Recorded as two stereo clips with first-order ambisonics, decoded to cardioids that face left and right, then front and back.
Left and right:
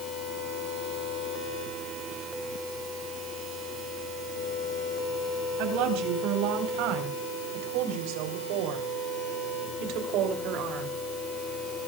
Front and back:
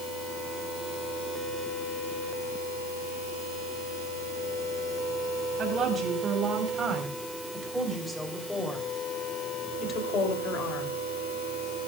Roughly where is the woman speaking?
Behind right.